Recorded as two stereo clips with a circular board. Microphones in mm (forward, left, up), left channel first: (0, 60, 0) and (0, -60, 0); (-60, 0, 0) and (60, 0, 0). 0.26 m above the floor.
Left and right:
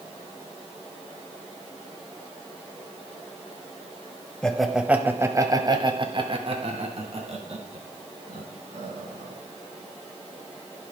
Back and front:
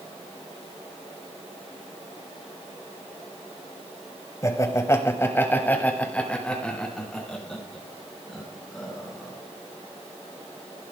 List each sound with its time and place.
4.4 s laughter: 165° left, 1.2 m; by 9.3 s 90° right, 4 m